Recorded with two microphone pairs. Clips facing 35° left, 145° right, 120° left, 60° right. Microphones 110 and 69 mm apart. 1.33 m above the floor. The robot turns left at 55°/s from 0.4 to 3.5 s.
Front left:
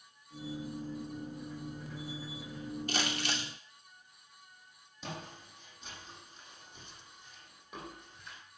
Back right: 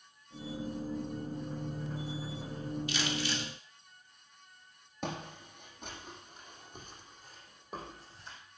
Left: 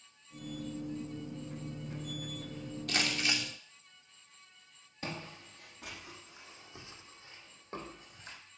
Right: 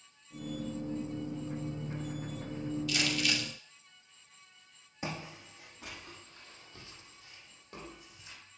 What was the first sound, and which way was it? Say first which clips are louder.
Crumpling: front left 1 dB, left 2 dB; 80° left.